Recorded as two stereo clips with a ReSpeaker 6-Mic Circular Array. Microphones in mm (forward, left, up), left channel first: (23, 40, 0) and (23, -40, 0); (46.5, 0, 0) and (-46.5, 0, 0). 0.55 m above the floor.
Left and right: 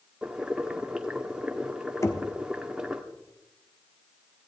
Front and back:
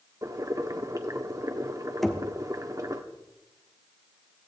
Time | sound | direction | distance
0.2 | boiling | 165° right | 1.2 m
2.0 | knocking | 85° left | 1.2 m